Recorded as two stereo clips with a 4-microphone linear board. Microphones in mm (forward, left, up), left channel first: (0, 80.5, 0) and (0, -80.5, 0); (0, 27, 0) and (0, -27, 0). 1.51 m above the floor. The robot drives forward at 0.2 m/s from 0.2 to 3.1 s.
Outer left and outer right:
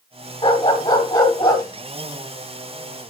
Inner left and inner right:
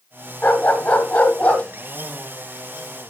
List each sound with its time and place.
0.4 s a dog barking: 25° left (ahead or behind), 1.8 m